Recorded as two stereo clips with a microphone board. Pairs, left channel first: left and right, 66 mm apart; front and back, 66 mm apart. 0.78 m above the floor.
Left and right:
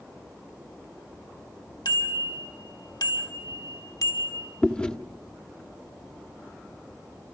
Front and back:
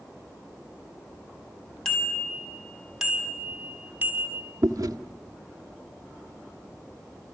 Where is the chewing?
160° left, 1.3 m.